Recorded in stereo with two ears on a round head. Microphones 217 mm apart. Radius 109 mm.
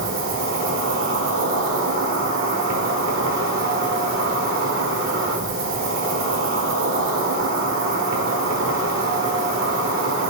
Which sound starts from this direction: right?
An insect, at 0.0 s.